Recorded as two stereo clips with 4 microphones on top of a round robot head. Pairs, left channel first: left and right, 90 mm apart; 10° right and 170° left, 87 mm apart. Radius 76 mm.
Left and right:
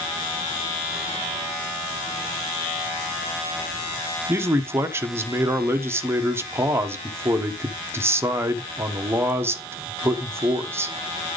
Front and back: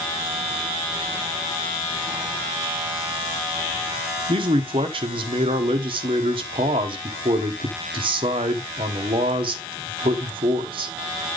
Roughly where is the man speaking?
Behind right.